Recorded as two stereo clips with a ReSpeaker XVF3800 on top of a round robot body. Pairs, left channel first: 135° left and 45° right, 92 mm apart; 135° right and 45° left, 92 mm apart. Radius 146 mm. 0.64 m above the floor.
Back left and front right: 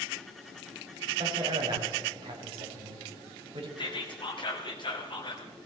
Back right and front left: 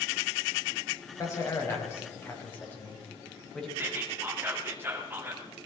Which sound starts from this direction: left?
Whispering, at 3.8 s.